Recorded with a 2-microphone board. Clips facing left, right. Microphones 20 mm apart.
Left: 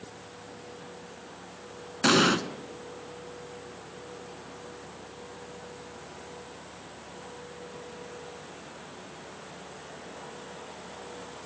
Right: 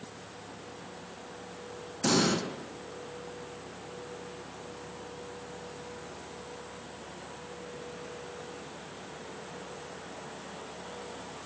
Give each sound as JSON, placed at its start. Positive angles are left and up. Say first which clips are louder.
{"t": 2.0, "sound": "an explosion", "louder": "left 5 dB", "side_deg": 55, "distance_m": 0.5}